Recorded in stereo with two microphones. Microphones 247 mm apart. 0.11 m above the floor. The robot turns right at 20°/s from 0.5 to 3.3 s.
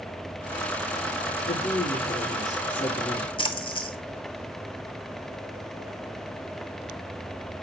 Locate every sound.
1.5 s a woman speaking: 145° left, 5.5 m; by 3.3 s 175° right, 5.5 m
3.4 s a splash: 20° left (ahead or behind), 0.9 m